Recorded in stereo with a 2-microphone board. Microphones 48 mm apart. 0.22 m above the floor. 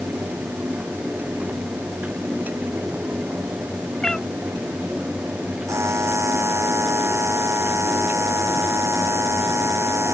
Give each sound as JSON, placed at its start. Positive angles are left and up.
{"t": 4.0, "sound": "a cat meowing", "side_deg": 15}
{"t": 5.7, "sound": "a buzzer", "side_deg": -70}